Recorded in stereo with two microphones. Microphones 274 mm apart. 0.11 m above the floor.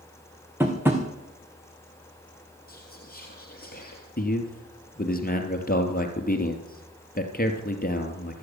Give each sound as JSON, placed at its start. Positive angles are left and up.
{"t": 0.6, "sound": "tapping", "side_deg": -10, "distance_m": 3.0}
{"t": 2.7, "sound": "whispering", "side_deg": 35, "distance_m": 2.5}
{"t": 4.2, "sound": "a man speaking", "side_deg": 35, "distance_m": 2.5}